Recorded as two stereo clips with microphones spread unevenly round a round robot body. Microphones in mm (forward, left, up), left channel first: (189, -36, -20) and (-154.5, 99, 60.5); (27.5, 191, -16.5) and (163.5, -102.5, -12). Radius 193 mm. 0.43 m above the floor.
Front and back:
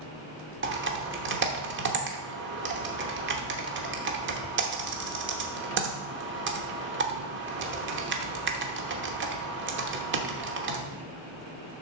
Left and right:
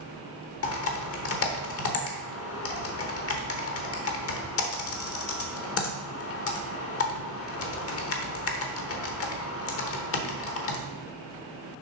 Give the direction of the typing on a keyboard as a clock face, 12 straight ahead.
9 o'clock.